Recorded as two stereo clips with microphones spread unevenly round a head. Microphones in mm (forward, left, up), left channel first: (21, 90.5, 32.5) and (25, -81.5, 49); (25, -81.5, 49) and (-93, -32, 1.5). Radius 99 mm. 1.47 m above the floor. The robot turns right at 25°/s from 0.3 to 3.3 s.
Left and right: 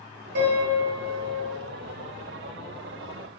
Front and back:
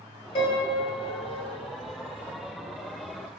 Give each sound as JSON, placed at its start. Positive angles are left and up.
{"t": 0.3, "sound": "a piano", "azimuth_deg": -70, "distance_m": 0.9}